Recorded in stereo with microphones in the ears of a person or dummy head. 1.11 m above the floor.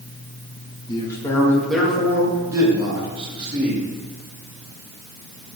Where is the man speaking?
25° left (ahead or behind), 1.7 m; by 3.9 s 35° right (ahead or behind), 3 m.